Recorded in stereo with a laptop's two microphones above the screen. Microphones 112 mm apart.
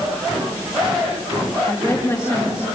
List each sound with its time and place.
1.7 s a woman speaking: 25° left (ahead or behind), 2 m